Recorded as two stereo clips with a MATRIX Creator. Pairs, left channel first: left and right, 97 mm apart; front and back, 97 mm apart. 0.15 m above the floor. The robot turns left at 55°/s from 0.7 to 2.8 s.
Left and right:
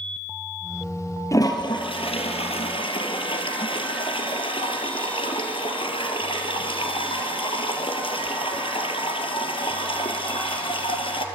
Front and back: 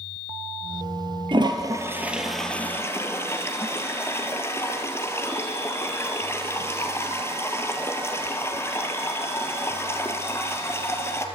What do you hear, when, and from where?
1.3 s a toilet flushing: 145° left, 3 m; by 11.3 s 65° left, 3 m